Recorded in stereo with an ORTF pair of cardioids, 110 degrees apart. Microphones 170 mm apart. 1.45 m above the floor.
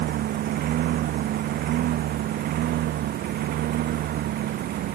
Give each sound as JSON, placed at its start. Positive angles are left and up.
{"t": 0.0, "sound": "a lawn mower", "azimuth_deg": -65}